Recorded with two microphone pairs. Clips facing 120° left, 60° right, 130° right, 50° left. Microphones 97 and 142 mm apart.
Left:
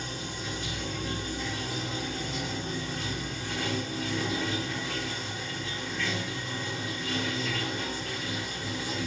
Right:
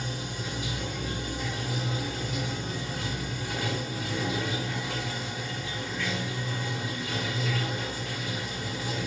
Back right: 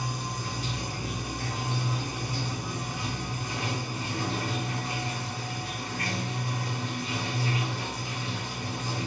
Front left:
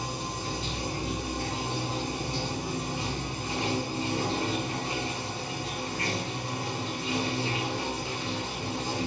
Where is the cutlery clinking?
No cutlery clinking in this recording.